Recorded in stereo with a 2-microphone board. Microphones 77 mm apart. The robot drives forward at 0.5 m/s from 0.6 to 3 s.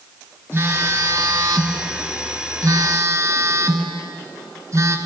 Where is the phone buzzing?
35° right (ahead or behind), 0.9 m; by 5.0 s 45° right (ahead or behind), 0.8 m.